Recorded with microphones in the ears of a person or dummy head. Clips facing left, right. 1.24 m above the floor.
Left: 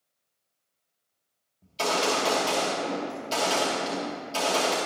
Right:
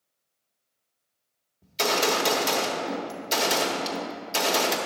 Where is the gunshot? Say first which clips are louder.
Right 1 dB; 25° right (ahead or behind), 1.3 m.